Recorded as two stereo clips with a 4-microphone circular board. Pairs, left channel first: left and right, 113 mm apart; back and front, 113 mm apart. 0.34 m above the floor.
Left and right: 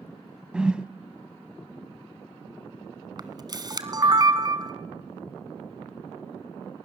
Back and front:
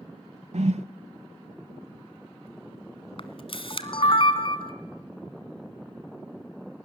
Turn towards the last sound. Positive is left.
turn(degrees=-145)